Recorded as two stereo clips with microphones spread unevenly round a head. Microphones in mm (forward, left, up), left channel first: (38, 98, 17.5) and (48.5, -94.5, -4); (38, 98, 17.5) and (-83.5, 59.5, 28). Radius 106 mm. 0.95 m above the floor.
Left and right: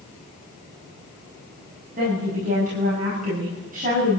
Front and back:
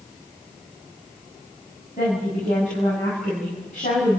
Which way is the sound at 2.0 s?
40° right.